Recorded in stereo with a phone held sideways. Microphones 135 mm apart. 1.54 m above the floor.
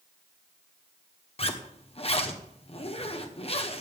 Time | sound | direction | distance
1.4 | a zipper | 45° left (ahead or behind) | 1.1 m